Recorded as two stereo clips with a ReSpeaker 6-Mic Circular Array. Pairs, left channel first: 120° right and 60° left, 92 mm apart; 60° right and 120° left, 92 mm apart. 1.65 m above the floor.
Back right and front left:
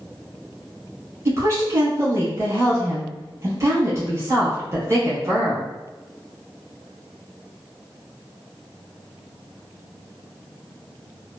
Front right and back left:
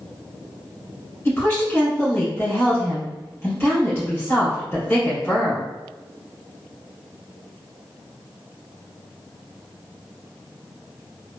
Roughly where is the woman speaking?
Ahead.